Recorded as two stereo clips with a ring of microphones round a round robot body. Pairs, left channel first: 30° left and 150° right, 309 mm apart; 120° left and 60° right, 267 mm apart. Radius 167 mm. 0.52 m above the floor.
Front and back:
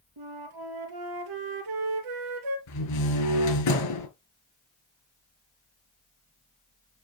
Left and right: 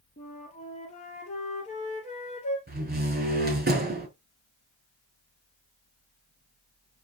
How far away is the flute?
About 2.5 m.